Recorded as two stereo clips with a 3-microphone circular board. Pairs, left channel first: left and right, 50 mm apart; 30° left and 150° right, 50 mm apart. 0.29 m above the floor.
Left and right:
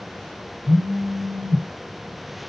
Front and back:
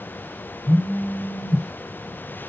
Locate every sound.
0.7 s a phone buzzing: 10° left, 3 m